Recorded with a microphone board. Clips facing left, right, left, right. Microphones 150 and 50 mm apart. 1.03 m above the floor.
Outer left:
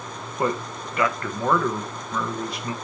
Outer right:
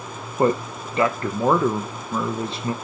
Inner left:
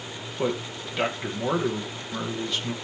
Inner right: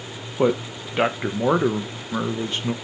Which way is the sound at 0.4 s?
30° right (ahead or behind).